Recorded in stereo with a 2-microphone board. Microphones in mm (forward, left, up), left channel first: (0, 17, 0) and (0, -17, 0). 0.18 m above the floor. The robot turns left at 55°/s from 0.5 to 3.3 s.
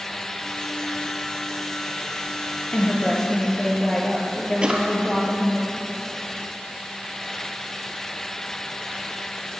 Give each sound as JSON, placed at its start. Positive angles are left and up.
{"t": 2.7, "sound": "a woman speaking", "azimuth_deg": 45, "distance_m": 3.5}
{"t": 4.6, "sound": "a drawer", "side_deg": -30, "distance_m": 1.8}